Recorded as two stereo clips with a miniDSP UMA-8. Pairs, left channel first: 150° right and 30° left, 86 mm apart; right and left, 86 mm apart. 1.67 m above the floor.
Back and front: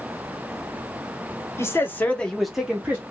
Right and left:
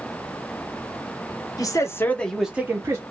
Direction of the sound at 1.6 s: 105° right.